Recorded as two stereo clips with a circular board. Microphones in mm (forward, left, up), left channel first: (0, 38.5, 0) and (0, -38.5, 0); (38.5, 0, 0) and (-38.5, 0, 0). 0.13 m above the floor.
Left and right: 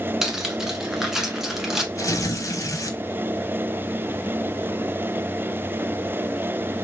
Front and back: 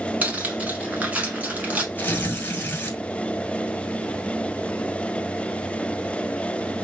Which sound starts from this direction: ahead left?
Tearing paper, at 1.9 s.